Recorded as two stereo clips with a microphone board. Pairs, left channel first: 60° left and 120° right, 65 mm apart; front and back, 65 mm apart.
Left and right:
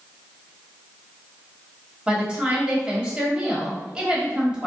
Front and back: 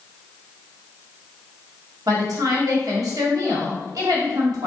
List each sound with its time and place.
2.1 s a woman speaking: 165° left, 1.6 m